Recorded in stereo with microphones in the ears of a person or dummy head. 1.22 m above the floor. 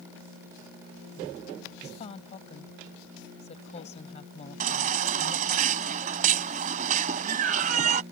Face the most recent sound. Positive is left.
turn(degrees=-45)  # may be behind; listen again after turning